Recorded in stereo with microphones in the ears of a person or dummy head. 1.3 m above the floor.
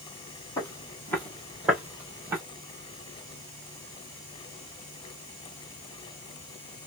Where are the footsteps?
20° left (ahead or behind), 1.4 m; by 2.4 s 15° right (ahead or behind), 1.6 m.